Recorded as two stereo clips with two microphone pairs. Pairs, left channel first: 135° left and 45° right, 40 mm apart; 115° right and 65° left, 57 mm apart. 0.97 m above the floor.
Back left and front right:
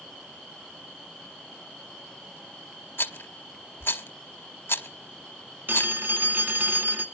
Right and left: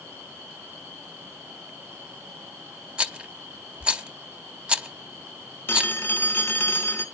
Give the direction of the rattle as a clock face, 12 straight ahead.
8 o'clock.